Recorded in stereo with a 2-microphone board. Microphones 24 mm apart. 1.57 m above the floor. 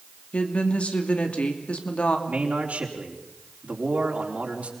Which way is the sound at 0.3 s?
60° left (ahead or behind).